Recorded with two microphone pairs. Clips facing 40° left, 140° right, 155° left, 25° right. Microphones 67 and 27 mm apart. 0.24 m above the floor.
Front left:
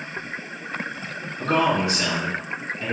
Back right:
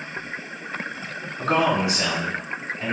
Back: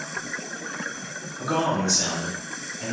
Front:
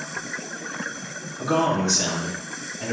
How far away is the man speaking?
About 1.2 m.